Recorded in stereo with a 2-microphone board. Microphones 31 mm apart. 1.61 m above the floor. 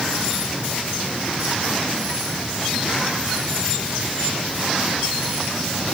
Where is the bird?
No bird in this recording.